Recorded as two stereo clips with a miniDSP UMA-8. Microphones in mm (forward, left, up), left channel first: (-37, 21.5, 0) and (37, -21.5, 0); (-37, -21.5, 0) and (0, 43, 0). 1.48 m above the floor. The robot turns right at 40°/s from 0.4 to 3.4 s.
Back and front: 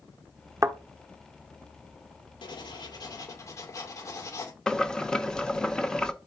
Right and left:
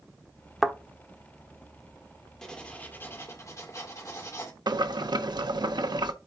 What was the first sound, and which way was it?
A thud, 20° right.